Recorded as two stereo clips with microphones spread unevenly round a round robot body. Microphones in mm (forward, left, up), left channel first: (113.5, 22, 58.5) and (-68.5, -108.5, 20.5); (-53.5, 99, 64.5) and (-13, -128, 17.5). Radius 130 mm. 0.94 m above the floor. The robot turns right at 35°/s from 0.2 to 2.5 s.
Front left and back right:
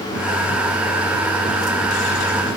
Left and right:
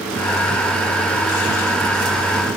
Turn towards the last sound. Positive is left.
No sound to turn to.